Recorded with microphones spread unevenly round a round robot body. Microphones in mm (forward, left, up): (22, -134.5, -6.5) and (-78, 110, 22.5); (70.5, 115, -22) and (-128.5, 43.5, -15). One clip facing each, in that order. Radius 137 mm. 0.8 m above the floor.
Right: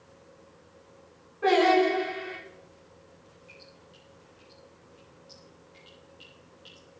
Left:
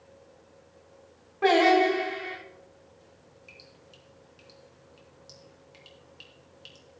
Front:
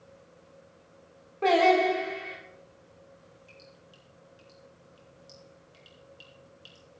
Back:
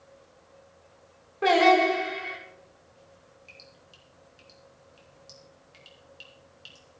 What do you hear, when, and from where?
1.4 s singing: 120° left, 6 m
3.5 s dripping: 135° left, 4 m